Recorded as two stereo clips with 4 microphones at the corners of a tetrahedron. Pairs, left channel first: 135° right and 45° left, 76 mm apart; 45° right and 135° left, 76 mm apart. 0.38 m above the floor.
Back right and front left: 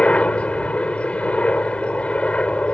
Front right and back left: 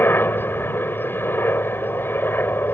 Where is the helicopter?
75° right.